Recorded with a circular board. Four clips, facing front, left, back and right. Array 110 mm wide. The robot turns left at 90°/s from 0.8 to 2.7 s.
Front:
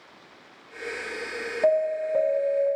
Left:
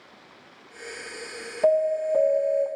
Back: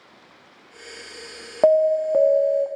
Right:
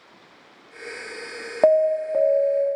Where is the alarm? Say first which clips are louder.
Right 4 dB, back 6 dB; 130° right, 1.0 m; by 2.7 s 140° left, 1.0 m.